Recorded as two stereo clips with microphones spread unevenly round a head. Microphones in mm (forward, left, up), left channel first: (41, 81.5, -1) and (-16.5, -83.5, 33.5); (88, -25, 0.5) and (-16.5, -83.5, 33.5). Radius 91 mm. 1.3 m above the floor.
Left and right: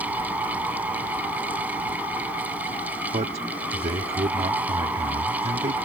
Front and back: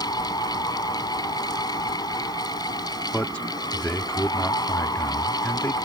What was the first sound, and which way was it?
A fan, 30° right.